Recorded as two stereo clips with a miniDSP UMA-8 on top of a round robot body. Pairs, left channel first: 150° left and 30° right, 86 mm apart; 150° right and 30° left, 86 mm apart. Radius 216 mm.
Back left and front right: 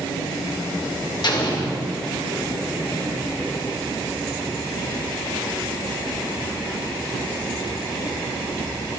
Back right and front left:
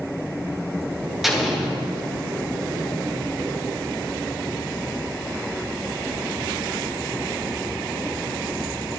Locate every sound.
1.2 s an explosion: 120° left, 1.5 m